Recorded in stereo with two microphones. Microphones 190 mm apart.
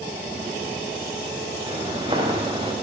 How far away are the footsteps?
About 3.5 m.